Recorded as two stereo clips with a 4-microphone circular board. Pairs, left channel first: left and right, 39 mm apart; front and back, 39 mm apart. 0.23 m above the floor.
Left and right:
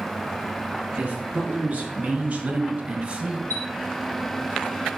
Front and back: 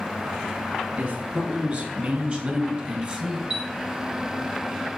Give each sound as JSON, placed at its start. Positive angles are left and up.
{"t": 1.0, "sound": "a man speaking", "azimuth_deg": -140, "distance_m": 4.5}
{"t": 3.5, "sound": "a chime", "azimuth_deg": 105, "distance_m": 1.7}